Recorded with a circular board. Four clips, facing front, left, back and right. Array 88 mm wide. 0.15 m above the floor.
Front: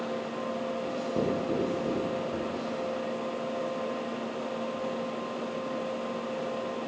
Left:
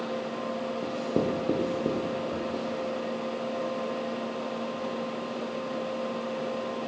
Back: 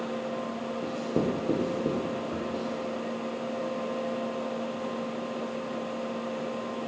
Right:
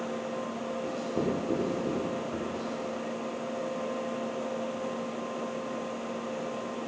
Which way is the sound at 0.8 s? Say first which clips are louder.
Left 3 dB, back 3 dB; 120° left.